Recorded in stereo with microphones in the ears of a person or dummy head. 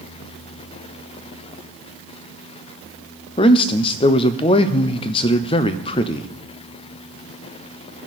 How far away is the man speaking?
About 0.6 m.